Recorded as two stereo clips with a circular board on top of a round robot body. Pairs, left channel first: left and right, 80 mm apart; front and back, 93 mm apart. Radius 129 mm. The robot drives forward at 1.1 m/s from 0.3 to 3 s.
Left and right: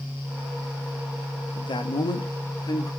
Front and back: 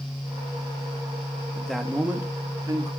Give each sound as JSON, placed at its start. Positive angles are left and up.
{"t": 1.6, "sound": "a man speaking", "azimuth_deg": 80, "distance_m": 1.4}